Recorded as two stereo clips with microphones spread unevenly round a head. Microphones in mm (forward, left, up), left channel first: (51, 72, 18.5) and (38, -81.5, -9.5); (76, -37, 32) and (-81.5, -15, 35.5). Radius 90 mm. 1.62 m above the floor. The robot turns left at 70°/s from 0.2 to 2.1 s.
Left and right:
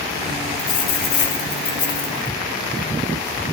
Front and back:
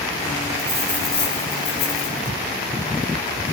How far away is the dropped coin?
About 4 m.